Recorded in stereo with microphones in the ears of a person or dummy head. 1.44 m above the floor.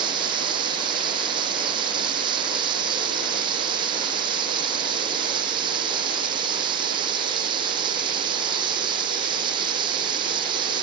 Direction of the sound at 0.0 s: 25° right (ahead or behind).